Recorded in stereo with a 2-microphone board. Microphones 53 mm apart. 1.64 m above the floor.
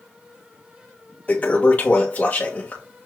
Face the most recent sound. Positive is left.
turn(degrees=30)  # may be behind; listen again after turning